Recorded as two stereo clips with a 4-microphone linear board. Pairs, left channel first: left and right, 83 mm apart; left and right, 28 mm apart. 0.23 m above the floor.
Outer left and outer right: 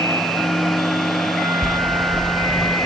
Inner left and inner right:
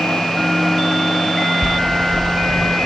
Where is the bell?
5° left (ahead or behind).